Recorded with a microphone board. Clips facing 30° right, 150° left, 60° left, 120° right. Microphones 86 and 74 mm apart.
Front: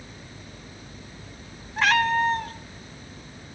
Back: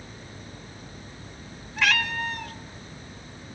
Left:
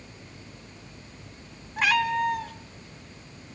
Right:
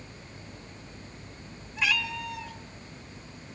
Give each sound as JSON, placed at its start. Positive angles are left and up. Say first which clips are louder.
{"t": 1.8, "sound": "a cat meowing", "louder": "front 6 dB, left 7 dB", "azimuth_deg": 25, "distance_m": 0.7}